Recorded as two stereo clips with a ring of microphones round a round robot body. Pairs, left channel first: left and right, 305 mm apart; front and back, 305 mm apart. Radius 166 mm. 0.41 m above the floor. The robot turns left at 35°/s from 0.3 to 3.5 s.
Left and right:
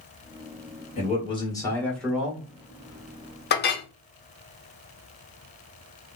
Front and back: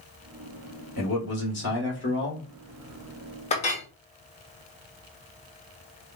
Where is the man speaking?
40° left, 1.7 m; by 2.5 s 15° right, 1.7 m.